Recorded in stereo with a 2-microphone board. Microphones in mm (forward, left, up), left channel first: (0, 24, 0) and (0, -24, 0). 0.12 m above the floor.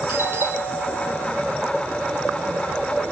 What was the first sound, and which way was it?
A doorbell, 50° right (ahead or behind).